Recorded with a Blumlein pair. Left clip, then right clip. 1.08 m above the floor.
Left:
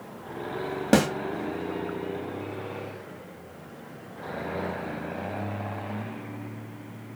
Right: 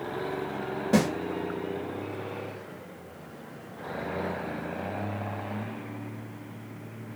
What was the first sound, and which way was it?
A snare drum, 45° left.